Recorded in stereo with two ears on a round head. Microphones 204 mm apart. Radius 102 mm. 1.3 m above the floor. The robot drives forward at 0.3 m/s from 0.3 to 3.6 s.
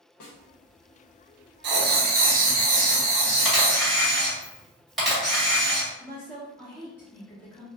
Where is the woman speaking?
10° left (ahead or behind), 0.8 m.